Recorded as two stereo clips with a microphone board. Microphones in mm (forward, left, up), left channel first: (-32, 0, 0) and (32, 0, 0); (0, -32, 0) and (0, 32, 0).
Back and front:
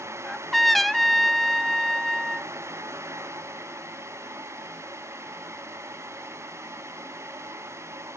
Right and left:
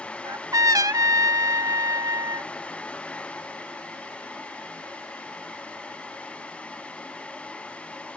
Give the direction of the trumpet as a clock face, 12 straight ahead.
9 o'clock.